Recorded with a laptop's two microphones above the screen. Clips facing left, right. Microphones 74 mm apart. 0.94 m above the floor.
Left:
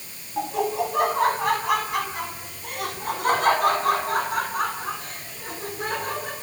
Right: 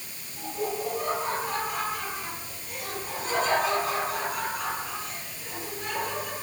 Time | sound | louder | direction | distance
0.4 | laughter | left 7 dB | 85° left | 6.5 m